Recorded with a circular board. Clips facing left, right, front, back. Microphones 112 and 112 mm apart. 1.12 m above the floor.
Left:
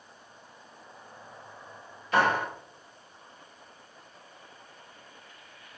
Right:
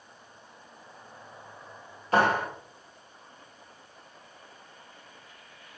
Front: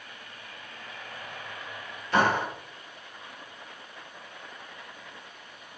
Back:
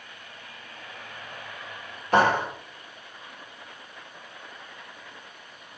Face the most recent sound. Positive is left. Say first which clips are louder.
# right 1 dB, back 3 dB
turn(degrees=-140)